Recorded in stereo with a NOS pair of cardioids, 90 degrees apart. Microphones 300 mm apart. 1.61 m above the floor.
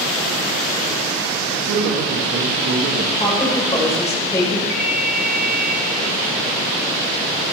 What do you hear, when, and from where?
1.5 s a man speaking: 70° right, 3.5 m; by 3.1 s 50° right, 2.5 m
3.2 s a woman speaking: 10° left, 7.5 m
4.7 s a ringtone: 65° right, 7.5 m